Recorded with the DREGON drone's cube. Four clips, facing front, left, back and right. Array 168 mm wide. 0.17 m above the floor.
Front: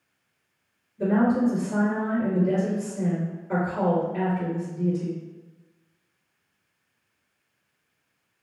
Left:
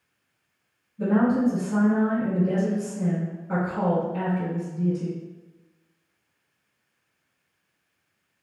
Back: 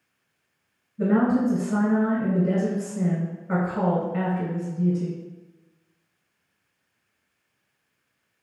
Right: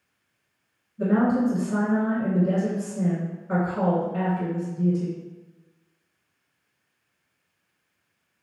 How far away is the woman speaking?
About 1.8 m.